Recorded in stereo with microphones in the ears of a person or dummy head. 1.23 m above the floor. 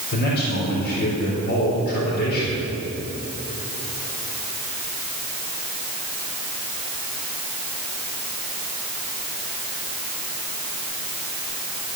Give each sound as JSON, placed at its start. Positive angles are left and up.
{"t": 0.1, "sound": "a man speaking", "side_deg": 55, "distance_m": 4.0}